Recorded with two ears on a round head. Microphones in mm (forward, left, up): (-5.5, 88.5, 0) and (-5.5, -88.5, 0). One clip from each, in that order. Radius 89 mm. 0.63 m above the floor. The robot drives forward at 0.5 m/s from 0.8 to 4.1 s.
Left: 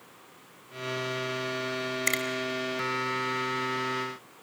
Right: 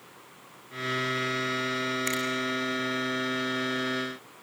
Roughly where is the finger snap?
Centre.